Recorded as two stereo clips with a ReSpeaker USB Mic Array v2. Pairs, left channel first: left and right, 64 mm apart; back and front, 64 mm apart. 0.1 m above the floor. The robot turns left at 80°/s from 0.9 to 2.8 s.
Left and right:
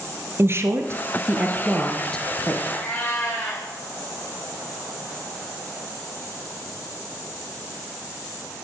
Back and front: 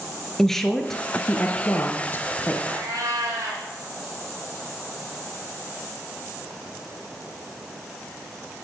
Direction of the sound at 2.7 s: 35° left.